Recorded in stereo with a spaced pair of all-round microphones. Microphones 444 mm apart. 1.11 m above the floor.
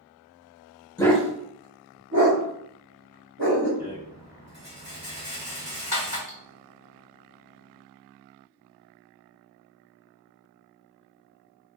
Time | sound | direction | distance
1.0 | a dog barking | 10° left (ahead or behind) | 0.7 m
3.8 | a rattle | 40° right (ahead or behind) | 1.3 m
6.3 | cutlery clinking | 5° right (ahead or behind) | 1.3 m